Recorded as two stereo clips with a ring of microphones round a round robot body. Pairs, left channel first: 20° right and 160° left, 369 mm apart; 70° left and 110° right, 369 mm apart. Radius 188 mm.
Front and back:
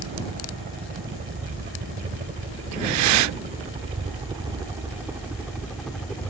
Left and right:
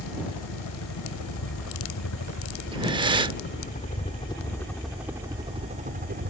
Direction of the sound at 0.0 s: 95° left.